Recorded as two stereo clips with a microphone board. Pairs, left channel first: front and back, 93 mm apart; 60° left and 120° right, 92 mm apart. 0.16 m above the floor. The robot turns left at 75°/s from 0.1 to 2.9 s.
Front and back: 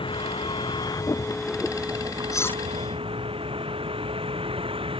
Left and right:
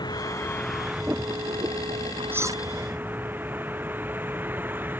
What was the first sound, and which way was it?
A vehicle, 20° left.